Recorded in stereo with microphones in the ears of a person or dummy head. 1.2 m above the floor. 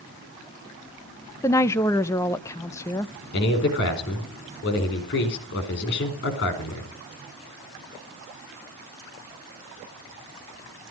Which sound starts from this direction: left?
A man speaking, at 3.3 s.